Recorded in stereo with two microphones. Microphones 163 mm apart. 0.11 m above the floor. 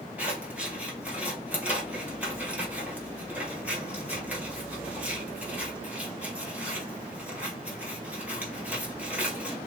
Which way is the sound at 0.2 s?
10° right (ahead or behind).